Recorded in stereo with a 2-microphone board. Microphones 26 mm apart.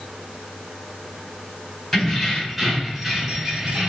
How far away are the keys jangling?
About 2 m.